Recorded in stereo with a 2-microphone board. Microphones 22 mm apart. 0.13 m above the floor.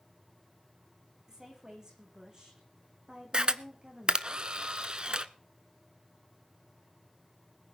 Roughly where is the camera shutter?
Right.